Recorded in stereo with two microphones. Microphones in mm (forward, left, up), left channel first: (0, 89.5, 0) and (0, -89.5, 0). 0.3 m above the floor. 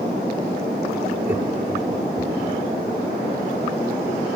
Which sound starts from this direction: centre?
Laughter, at 1.2 s.